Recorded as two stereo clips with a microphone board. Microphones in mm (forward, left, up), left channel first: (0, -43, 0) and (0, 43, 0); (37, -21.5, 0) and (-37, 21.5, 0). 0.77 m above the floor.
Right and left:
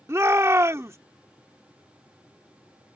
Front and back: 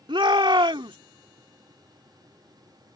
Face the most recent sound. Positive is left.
turn(degrees=145)